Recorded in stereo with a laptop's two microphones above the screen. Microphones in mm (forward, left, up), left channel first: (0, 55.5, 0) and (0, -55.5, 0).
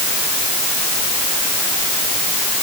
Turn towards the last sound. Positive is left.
No sound to turn to.